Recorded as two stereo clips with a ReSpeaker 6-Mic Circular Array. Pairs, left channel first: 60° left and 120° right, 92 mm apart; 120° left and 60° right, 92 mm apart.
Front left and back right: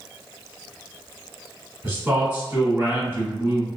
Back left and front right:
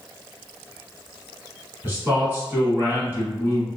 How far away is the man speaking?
About 1.2 m.